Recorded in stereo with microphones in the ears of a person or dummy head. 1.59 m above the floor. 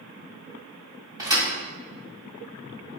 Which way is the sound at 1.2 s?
15° right (ahead or behind).